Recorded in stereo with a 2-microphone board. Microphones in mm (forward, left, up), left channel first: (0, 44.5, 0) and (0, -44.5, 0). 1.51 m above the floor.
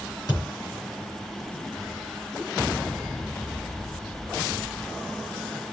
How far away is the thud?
About 5.5 m.